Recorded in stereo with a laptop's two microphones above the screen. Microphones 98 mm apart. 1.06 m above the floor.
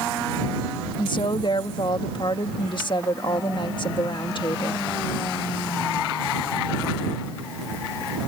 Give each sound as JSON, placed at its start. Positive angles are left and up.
{"t": 1.0, "sound": "a woman speaking", "side_deg": 50}